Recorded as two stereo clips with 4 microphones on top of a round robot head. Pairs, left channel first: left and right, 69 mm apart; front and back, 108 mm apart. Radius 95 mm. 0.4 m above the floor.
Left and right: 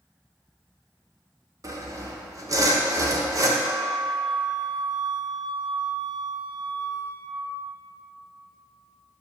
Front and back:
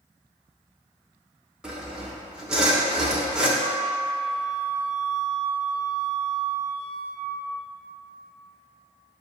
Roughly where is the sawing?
Right.